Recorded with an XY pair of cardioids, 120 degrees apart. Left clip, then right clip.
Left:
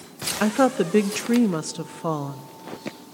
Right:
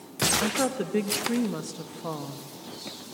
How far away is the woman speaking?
About 0.9 m.